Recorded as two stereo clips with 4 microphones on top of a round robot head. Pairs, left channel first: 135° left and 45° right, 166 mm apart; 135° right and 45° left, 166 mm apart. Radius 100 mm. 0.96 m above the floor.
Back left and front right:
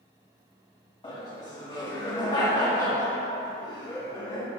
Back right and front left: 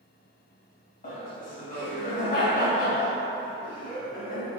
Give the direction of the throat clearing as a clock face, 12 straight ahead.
No throat clearing in this recording.